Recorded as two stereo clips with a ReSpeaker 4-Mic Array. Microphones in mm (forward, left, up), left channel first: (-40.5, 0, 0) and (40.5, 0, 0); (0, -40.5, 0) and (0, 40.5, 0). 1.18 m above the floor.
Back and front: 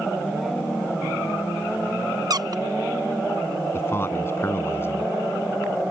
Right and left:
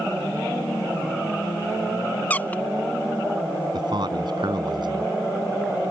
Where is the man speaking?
120° left.